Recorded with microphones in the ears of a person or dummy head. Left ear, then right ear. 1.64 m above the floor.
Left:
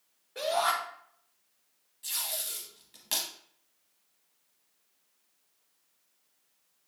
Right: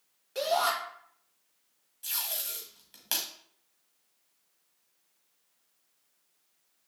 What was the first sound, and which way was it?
A shout, 75° right (ahead or behind).